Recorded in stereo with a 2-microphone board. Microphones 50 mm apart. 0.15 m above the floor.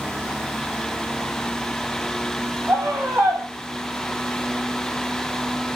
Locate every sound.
2.7 s a scream: 45° right (ahead or behind), 6 m